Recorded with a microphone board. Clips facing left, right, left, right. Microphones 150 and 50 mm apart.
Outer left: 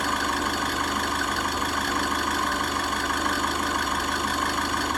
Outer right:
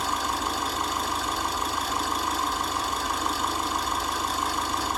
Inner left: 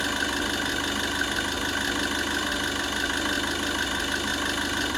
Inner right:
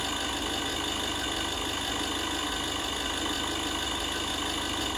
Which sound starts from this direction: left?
An engine running, at 0.0 s.